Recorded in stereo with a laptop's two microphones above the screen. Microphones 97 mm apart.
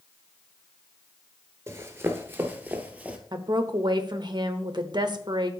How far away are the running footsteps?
About 1.0 m.